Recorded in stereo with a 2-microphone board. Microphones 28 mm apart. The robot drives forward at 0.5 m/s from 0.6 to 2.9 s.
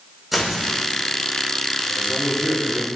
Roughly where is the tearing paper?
Centre.